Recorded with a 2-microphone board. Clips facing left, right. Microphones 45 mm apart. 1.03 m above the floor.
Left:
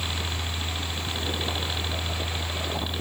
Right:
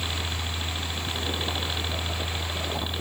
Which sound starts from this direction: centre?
A helicopter, at 0.0 s.